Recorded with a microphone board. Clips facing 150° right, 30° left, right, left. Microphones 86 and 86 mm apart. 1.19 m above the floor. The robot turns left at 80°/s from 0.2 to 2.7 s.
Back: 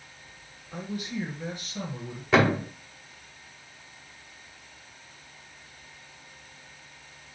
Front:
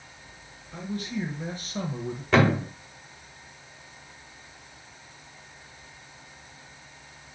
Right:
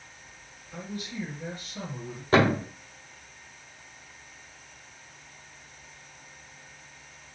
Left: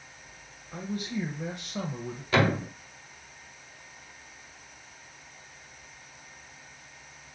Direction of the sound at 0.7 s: 160° left.